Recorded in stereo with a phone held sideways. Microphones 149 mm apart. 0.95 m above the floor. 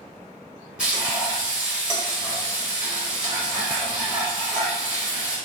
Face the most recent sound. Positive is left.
turn(degrees=-5)  # may be behind; listen again after turning